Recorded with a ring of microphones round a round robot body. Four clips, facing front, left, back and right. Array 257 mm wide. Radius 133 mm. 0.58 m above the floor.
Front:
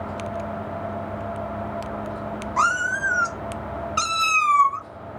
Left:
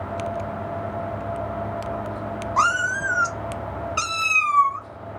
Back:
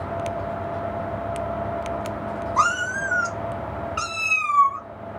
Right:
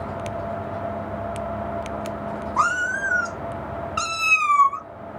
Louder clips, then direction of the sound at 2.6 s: Left 1 dB, front 1 dB; 80° left.